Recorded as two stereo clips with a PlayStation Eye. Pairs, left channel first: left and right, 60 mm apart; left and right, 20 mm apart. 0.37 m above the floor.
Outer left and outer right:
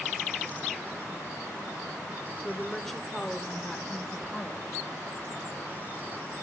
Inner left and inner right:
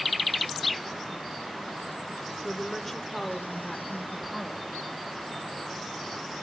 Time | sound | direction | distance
2.4 | a woman speaking | 5° left (ahead or behind) | 1.3 m